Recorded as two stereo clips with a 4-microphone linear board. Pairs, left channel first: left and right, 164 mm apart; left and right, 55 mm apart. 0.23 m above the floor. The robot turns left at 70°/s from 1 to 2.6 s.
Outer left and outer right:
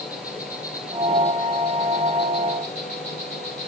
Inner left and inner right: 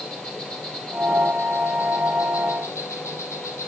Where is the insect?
160° left, 3 m; by 3.7 s 50° left, 3 m.